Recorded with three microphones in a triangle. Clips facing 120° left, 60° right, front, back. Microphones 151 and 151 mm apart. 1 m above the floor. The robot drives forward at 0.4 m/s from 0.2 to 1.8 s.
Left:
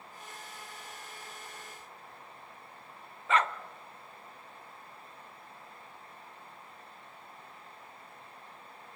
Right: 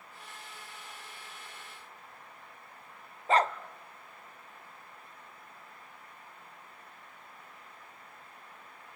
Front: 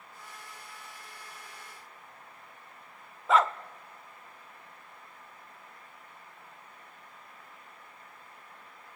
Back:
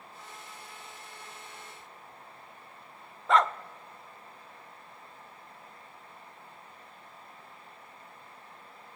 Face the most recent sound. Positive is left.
turn(degrees=-85)